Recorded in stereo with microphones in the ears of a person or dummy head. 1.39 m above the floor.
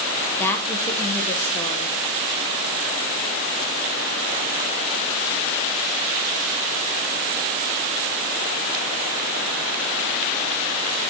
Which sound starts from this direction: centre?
A woman speaking, at 0.4 s.